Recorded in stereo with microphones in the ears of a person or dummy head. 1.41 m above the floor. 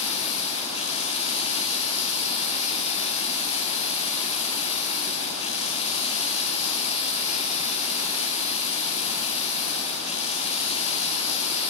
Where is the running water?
40° left (ahead or behind), 1.3 m.